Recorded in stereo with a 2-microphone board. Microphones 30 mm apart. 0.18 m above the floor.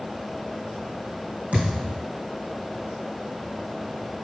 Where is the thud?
50° right (ahead or behind), 3 m.